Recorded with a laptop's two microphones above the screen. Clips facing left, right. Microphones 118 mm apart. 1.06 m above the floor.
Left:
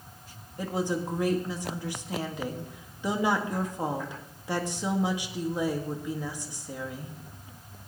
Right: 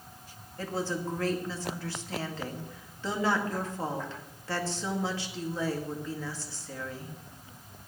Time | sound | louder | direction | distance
0.6 | a woman speaking | left 3 dB | 15° left (ahead or behind) | 2 m